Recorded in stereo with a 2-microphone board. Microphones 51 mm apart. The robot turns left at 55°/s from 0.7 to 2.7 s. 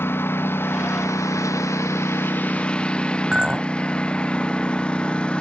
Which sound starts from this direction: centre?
A clink, at 3.3 s.